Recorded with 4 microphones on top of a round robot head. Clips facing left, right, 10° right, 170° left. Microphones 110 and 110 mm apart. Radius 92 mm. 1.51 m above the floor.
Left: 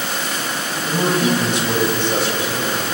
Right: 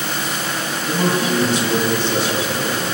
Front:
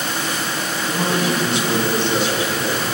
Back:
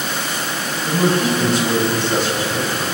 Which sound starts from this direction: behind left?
A man speaking, at 0.8 s.